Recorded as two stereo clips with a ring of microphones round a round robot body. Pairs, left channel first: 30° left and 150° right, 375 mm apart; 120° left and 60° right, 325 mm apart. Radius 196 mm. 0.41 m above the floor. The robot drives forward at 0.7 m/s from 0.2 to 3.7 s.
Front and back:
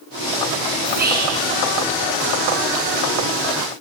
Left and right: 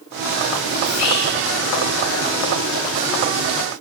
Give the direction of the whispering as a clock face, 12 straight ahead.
7 o'clock.